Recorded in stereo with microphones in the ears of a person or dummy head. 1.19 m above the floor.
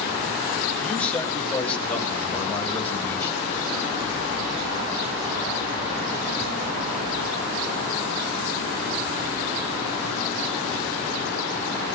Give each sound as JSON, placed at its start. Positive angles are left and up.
{"t": 0.8, "sound": "a man speaking", "side_deg": 10, "distance_m": 4.5}